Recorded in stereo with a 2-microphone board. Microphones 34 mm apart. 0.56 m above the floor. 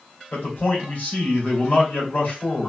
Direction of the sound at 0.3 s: 65° left (ahead or behind).